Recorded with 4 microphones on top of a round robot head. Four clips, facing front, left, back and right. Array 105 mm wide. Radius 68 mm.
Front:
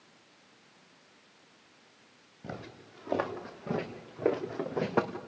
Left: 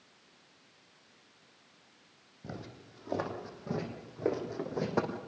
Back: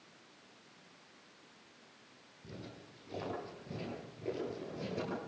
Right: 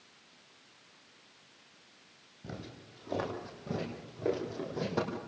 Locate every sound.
2.4 s footsteps: 10° left, 6 m; by 5.2 s 20° left, 5 m